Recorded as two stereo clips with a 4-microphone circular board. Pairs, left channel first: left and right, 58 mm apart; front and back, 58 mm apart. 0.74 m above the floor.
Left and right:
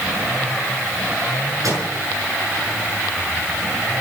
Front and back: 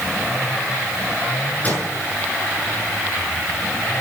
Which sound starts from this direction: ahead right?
A microwave, at 1.6 s.